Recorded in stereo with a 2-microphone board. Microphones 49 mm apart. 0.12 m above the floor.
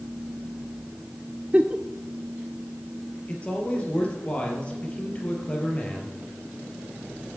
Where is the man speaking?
25° left (ahead or behind), 3 m.